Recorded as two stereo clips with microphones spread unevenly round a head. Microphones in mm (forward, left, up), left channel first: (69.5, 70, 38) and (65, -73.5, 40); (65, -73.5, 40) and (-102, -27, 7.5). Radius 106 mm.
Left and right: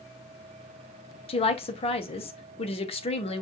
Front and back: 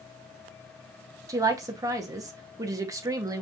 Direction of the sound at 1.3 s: 115° left.